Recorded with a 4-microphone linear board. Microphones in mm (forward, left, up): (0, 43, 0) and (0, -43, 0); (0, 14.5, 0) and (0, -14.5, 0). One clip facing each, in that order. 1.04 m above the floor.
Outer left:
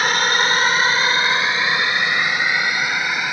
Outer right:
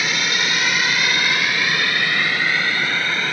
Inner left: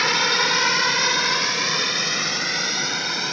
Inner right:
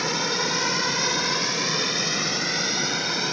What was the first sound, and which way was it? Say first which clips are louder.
A drone: outer left 5 dB, inner left 6 dB; 45° left (ahead or behind).